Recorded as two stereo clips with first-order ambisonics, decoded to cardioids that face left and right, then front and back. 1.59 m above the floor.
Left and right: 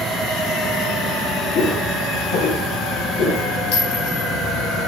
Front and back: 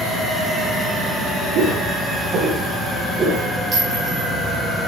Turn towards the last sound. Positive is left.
turn(degrees=100)